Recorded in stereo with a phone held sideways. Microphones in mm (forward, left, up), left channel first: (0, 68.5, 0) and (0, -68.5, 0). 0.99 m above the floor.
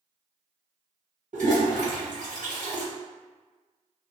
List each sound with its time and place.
1.3 s a toilet flushing: 70° right (ahead or behind), 1.1 m